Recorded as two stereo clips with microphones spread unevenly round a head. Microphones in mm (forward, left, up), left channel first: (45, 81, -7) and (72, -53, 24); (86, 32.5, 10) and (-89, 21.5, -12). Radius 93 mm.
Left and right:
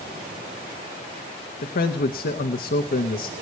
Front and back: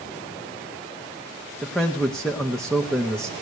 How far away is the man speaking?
About 0.9 m.